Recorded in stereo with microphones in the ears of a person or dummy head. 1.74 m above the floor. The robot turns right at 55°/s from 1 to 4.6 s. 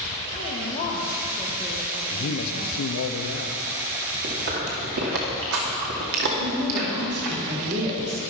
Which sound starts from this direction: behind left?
A woman speaking, at 0.3 s.